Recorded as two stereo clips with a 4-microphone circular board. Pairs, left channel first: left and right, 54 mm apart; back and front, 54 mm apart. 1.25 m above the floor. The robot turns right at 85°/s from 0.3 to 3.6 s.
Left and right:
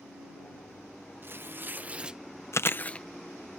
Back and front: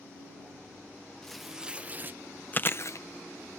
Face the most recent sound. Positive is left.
turn(degrees=-145)